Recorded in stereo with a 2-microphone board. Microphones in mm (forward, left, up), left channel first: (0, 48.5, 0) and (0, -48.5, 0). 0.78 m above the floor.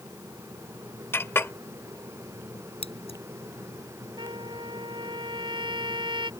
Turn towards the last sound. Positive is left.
turn(degrees=-55)  # may be behind; listen again after turning